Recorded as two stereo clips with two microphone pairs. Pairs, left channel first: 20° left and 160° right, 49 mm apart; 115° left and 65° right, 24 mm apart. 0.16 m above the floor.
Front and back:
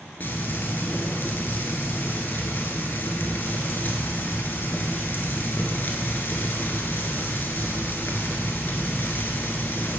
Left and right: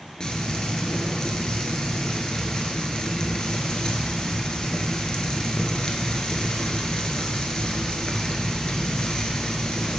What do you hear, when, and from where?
0.2 s frying: 60° left, 0.8 m